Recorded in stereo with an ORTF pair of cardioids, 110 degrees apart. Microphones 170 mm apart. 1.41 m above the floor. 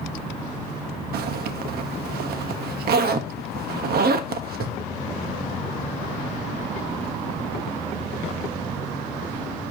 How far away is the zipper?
About 1.4 m.